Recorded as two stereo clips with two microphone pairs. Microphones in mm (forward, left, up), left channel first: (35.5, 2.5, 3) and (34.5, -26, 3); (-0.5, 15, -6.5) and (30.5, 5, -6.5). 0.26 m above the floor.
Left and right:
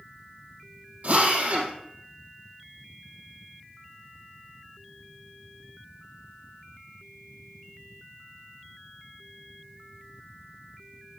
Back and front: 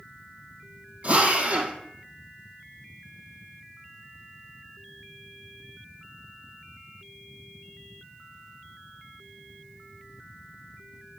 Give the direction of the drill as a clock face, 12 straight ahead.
2 o'clock.